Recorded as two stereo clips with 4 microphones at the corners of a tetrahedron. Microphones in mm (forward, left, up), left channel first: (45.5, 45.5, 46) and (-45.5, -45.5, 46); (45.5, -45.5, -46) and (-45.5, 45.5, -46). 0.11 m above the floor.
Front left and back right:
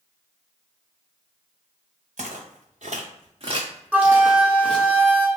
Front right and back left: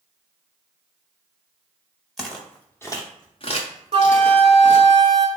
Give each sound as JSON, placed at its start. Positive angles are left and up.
{"t": 2.2, "sound": "footsteps", "azimuth_deg": -135, "distance_m": 1.2}
{"t": 3.9, "sound": "a flute", "azimuth_deg": 150, "distance_m": 0.6}